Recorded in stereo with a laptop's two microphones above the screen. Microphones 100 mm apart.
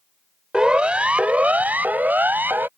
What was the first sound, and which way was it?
A siren, 10° right (ahead or behind).